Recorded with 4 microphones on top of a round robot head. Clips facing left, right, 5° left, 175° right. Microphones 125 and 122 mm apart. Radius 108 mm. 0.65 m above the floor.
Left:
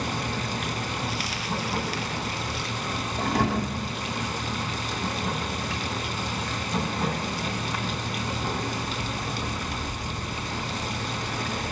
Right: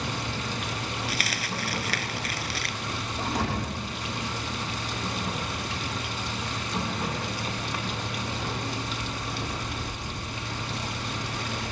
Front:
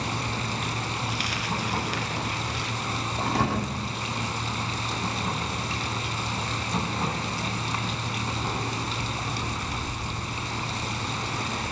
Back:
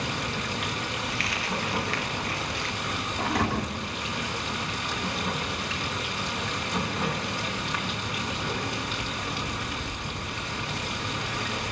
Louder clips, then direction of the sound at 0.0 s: Left 3 dB, front 1 dB; 55° left.